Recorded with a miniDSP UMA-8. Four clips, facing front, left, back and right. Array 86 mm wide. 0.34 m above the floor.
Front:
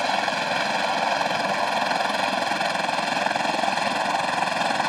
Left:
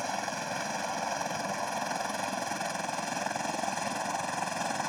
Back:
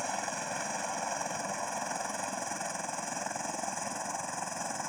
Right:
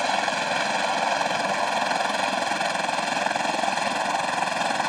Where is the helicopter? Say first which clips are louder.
Right 9 dB, front 12 dB; 40° right; by 4.9 s 35° right.